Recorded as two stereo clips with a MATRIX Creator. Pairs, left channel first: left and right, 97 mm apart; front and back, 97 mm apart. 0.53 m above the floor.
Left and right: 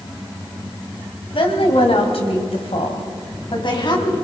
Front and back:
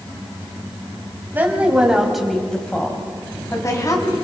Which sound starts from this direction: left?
A woman speaking, at 1.3 s.